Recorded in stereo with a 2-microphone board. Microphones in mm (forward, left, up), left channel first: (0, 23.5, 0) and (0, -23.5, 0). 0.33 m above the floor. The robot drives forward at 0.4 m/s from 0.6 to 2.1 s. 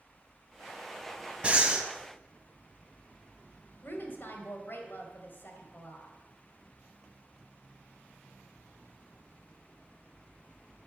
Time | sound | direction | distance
1.4 | breathing | 25° right (ahead or behind) | 0.7 m
3.8 | a woman speaking | 45° left (ahead or behind) | 1.3 m